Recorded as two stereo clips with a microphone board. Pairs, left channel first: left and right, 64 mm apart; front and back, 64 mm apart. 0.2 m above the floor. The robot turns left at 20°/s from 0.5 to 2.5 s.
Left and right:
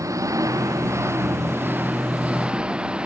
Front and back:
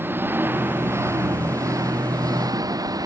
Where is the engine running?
125° right; by 3.1 s 165° right.